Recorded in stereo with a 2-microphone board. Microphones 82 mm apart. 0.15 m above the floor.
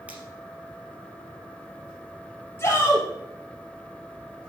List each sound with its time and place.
0.1 s a finger snap: 20° right (ahead or behind), 3 m
2.6 s a shout: 30° left (ahead or behind), 3 m